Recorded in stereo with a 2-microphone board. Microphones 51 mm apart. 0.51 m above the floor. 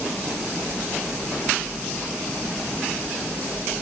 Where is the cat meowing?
No cat meowing in this recording.